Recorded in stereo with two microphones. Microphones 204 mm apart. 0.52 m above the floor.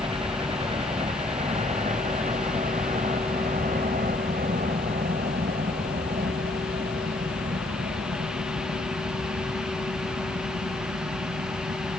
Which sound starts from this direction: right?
A helicopter, at 0.0 s.